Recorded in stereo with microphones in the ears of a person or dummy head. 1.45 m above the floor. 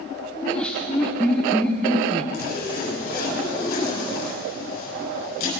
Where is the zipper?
55° left (ahead or behind), 6.5 m.